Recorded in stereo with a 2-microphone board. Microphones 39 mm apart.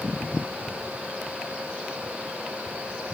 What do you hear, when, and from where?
Only background noise.